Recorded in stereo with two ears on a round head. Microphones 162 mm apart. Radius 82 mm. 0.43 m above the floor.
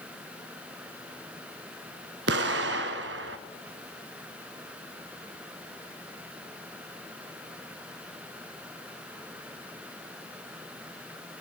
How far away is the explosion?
About 1.0 m.